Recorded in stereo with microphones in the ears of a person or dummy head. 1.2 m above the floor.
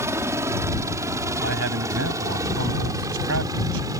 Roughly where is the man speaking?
Right.